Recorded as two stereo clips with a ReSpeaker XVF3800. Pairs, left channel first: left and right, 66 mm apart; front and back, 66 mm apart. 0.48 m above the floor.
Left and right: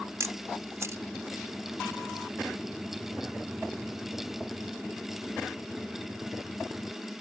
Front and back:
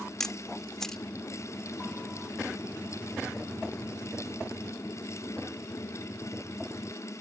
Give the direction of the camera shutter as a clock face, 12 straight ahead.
3 o'clock.